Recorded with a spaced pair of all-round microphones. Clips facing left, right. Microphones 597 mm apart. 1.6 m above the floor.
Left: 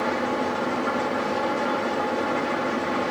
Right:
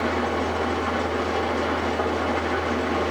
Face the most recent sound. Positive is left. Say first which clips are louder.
# right 1 dB
turn(degrees=-75)  # may be behind; listen again after turning